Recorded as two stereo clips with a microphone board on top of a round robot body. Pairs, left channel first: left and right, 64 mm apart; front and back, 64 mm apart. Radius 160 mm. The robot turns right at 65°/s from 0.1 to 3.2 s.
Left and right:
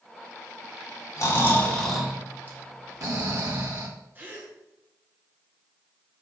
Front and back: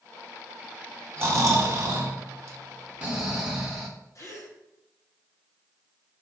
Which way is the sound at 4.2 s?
35° right.